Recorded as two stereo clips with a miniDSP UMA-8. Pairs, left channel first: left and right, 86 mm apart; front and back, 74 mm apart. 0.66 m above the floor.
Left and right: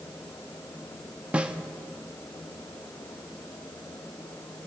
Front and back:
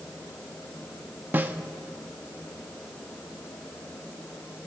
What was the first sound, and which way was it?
A snare drum, 150° right.